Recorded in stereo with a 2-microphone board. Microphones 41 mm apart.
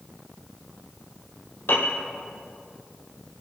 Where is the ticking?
I don't hear ticking.